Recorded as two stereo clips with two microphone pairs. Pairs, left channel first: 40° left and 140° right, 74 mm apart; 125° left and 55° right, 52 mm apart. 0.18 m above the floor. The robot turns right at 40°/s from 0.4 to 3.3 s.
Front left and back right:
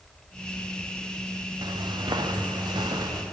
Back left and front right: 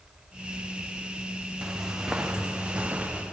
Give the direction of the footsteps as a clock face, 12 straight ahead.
4 o'clock.